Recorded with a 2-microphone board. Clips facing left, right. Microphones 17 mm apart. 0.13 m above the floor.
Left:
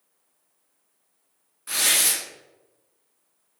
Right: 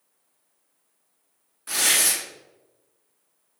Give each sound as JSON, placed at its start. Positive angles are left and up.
{"t": 1.7, "sound": "tearing paper", "side_deg": -5, "distance_m": 1.3}